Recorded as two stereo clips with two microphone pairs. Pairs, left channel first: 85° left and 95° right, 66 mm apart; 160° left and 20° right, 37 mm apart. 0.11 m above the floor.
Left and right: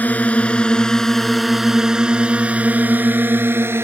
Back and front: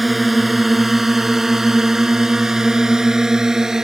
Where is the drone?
65° left; by 3.9 s 80° right.